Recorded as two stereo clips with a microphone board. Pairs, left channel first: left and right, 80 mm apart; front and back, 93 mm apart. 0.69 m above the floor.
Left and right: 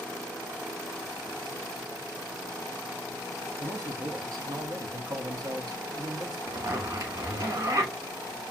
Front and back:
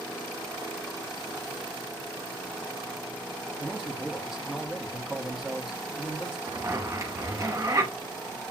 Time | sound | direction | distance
3.6 | a man speaking | 95° right | 0.7 m
6.5 | a zipper | 130° right | 1.3 m